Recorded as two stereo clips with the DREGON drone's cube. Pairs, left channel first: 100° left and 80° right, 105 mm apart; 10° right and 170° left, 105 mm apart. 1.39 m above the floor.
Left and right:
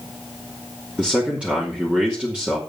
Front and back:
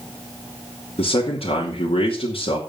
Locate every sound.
1.0 s a man speaking: straight ahead, 2.5 m